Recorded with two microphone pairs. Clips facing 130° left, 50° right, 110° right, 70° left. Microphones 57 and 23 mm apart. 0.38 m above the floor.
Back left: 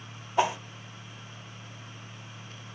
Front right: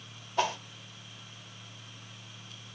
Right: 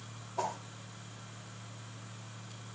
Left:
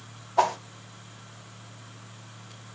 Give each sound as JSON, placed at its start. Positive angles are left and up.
{"t": 0.4, "sound": "a whoosh", "azimuth_deg": 60, "distance_m": 0.5}